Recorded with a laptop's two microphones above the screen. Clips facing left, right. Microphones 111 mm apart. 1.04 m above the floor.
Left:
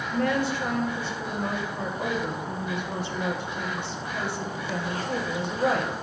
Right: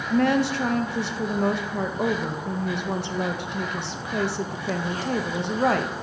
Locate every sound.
0.1 s a woman speaking: 75° right (ahead or behind), 0.6 m